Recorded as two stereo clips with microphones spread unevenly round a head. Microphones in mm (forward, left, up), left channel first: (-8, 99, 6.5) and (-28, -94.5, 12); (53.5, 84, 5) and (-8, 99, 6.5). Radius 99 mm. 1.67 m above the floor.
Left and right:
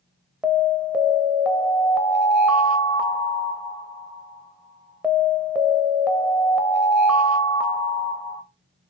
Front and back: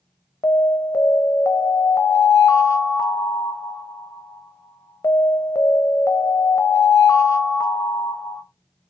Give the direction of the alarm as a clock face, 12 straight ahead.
12 o'clock.